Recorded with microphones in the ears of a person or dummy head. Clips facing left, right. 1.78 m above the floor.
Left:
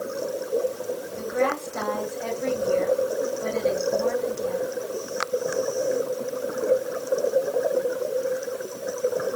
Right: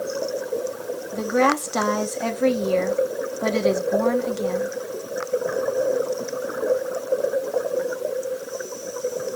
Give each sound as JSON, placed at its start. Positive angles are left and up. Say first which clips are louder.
{"t": 1.1, "sound": "a woman speaking", "louder": "right 5 dB", "side_deg": -80, "distance_m": 1.8}